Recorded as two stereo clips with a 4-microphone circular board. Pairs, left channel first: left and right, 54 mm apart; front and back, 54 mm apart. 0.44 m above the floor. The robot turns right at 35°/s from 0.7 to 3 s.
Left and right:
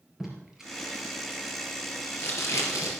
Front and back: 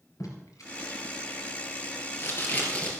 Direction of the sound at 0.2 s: 5° right.